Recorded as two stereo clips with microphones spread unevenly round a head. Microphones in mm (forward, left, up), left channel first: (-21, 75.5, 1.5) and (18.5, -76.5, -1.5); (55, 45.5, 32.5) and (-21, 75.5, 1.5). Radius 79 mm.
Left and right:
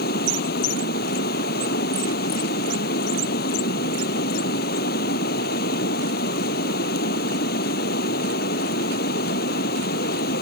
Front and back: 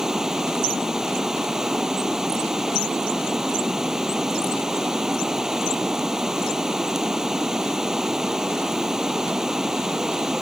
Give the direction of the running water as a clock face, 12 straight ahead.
10 o'clock.